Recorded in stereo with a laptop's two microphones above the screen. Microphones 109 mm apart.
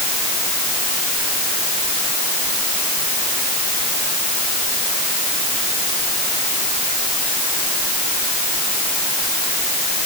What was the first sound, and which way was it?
Only background noise.